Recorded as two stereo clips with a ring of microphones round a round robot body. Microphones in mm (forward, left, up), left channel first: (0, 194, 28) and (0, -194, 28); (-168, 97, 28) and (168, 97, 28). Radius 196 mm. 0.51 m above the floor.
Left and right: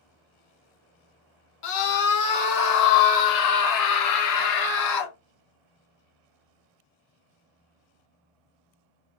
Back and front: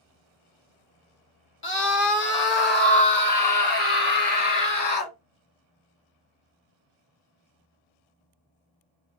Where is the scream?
130° left, 1.8 m; by 5.1 s 120° left, 4 m.